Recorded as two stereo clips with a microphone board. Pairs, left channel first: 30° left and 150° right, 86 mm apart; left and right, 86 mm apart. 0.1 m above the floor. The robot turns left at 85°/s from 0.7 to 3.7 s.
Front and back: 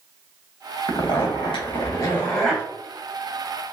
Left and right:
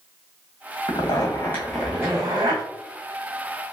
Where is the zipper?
75° left, 1.2 m; by 2.6 s 75° right, 1.2 m.